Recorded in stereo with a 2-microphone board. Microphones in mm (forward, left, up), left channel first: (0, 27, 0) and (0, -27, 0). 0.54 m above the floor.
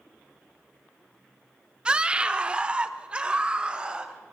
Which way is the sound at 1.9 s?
15° right (ahead or behind).